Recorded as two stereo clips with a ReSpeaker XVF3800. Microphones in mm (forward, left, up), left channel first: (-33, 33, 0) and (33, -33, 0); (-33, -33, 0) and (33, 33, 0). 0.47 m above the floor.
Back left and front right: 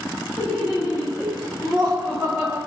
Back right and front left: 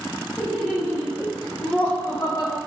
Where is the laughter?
20° left, 1.4 m; by 2.6 s 125° right, 1.6 m.